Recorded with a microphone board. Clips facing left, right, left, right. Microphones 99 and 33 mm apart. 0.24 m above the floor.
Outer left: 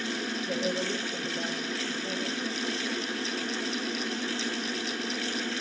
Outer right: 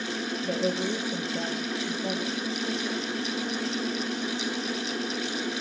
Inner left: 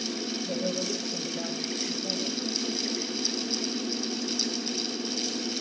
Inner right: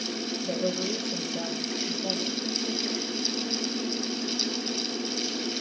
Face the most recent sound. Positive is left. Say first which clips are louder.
# outer right 4 dB, inner right 3 dB
turn(degrees=-80)